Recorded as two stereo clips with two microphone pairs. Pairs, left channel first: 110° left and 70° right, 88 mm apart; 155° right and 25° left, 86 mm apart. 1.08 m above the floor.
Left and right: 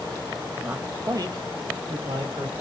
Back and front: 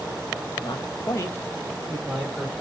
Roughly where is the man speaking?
Behind right.